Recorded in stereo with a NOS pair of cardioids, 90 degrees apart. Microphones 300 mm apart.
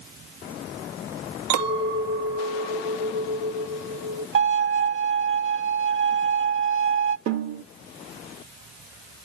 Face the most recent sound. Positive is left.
turn(degrees=-70)